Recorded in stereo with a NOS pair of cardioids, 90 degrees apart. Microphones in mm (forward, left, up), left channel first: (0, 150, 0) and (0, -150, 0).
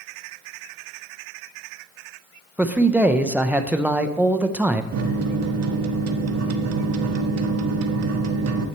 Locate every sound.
2.6 s a man speaking: 5° right, 0.5 m
4.9 s a microwave: 55° right, 0.9 m